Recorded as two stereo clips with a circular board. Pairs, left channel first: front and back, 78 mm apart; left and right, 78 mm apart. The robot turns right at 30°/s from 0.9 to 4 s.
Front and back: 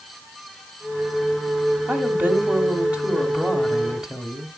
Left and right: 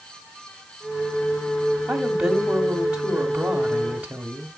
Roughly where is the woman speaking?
Behind.